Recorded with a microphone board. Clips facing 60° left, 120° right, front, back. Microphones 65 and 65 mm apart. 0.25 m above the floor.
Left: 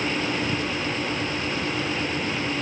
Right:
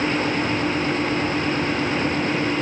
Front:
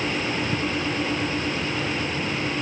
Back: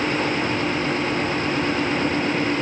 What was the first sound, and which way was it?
Only background noise.